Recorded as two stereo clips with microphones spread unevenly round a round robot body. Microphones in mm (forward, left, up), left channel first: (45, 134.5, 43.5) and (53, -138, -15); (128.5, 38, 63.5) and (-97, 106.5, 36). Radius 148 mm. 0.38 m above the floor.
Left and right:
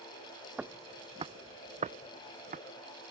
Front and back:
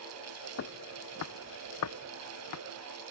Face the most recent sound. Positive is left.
turn(degrees=-25)